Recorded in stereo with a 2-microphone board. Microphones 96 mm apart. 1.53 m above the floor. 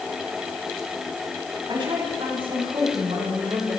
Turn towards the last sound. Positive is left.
turn(degrees=-90)